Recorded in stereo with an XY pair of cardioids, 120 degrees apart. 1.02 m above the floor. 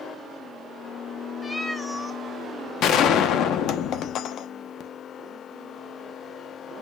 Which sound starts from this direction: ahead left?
A gunshot, at 2.8 s.